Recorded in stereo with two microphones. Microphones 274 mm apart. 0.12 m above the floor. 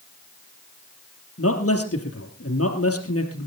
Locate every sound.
1.4 s a man speaking: 55° left (ahead or behind), 3 m